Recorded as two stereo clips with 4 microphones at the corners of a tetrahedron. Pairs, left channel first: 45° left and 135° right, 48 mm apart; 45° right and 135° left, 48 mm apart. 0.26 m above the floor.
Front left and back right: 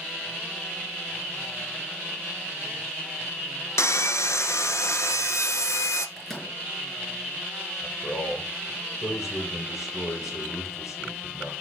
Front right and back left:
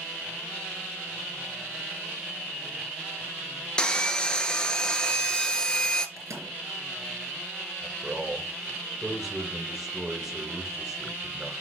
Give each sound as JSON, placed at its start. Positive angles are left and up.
{"t": 3.8, "sound": "sawing", "azimuth_deg": 25, "distance_m": 1.0}
{"t": 6.2, "sound": "a microwave", "azimuth_deg": 130, "distance_m": 4.0}
{"t": 7.8, "sound": "a man speaking", "azimuth_deg": 55, "distance_m": 5.5}